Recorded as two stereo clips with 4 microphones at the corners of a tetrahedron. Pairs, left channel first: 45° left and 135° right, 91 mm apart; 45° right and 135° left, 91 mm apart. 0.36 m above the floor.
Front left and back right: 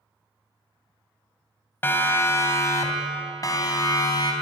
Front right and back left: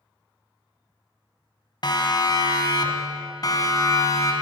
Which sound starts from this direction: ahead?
A siren, at 1.8 s.